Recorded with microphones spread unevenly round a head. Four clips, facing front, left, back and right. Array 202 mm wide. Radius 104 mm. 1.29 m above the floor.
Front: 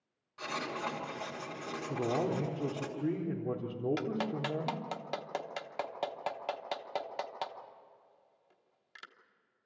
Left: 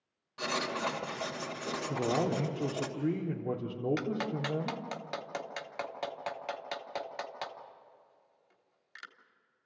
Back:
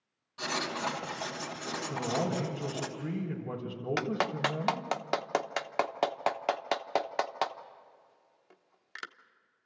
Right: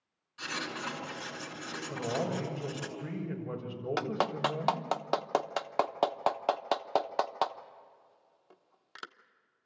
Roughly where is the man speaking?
Ahead left.